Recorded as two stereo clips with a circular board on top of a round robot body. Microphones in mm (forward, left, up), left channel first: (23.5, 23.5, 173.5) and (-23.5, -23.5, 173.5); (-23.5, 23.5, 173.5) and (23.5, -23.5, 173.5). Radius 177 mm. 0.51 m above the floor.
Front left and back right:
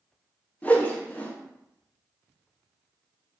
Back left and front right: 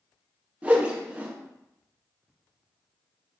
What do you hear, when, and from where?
0.6 s a whoosh: 5° left, 1.0 m